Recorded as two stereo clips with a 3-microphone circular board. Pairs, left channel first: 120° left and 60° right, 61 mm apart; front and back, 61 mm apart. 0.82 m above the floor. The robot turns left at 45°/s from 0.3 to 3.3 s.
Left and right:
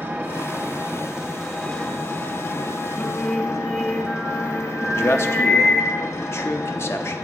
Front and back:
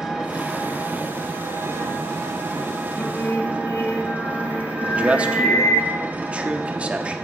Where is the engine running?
100° right, 0.9 m; by 7.2 s 125° left, 0.9 m.